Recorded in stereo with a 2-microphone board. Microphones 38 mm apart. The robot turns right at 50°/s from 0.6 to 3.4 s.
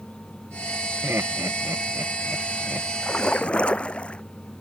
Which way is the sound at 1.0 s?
65° right (ahead or behind).